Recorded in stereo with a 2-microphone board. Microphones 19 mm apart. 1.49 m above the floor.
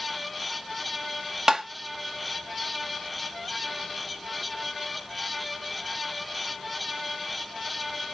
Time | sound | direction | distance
1.5 | tapping | 35° right (ahead or behind) | 0.8 m